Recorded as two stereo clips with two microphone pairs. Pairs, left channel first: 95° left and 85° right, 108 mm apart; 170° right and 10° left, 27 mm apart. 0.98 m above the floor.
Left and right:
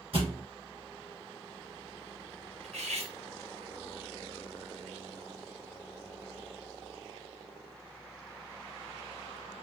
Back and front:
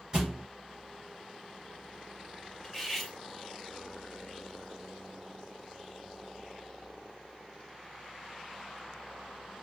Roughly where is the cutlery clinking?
Right.